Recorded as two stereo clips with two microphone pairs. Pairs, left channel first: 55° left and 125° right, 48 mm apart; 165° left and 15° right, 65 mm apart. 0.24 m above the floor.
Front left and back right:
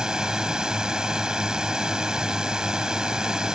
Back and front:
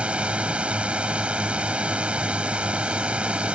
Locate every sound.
0.0 s a drone: 65° right